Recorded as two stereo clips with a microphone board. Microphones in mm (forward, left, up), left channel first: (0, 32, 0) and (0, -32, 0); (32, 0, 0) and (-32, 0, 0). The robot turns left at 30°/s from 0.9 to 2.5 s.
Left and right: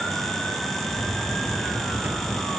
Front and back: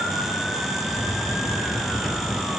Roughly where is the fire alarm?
No fire alarm in this recording.